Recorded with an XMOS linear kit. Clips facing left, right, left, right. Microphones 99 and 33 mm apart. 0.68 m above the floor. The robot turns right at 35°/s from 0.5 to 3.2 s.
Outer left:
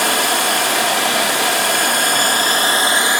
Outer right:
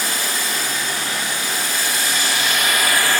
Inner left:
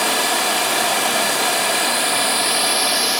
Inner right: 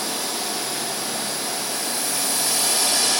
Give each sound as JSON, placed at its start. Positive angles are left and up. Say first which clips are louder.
{"t": 0.0, "sound": "running water", "louder": "outer left 8 dB, inner left 9 dB", "azimuth_deg": 70, "distance_m": 1.7}